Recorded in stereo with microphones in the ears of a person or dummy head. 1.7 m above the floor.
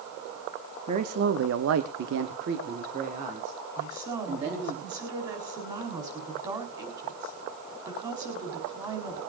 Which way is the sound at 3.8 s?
20° right (ahead or behind).